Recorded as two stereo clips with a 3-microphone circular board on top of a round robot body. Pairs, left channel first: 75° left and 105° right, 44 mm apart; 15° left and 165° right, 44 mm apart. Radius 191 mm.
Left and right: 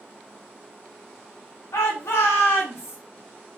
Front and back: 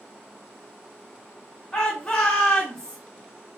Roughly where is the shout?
Left.